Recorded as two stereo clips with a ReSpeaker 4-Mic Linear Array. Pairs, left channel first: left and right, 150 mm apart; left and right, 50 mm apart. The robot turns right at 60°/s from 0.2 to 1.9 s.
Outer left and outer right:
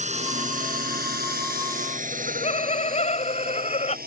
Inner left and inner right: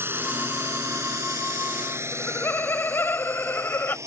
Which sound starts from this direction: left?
Laughter, at 2.1 s.